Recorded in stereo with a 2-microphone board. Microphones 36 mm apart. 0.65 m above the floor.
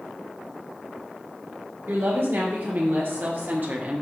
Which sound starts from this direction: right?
A woman speaking, at 1.9 s.